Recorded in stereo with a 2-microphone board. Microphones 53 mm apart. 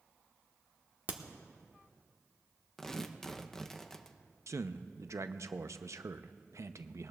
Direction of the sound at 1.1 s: 35° right (ahead or behind).